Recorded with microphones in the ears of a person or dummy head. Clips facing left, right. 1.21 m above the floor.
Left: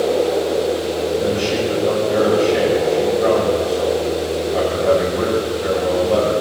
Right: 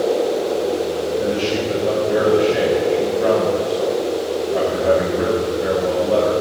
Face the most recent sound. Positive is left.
turn(degrees=-15)  # may be behind; listen again after turning